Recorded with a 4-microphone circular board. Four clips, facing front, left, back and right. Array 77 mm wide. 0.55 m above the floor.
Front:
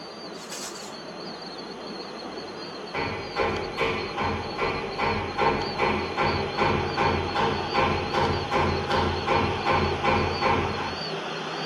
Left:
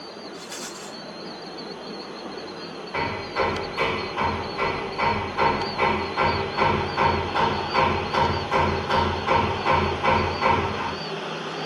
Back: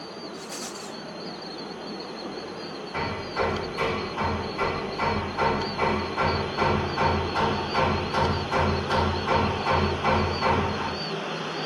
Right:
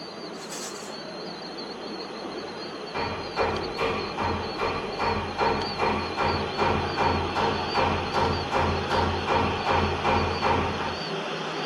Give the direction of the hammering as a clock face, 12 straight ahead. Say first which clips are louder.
Left 2 dB, even; 9 o'clock.